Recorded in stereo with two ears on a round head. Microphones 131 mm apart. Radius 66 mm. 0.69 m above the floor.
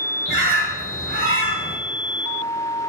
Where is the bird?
75° right (ahead or behind), 3.5 m.